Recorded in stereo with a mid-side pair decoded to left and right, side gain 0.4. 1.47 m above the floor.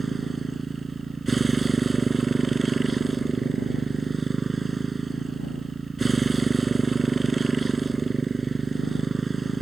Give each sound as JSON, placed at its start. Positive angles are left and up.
{"t": 0.0, "sound": "a motorcycle", "azimuth_deg": -30}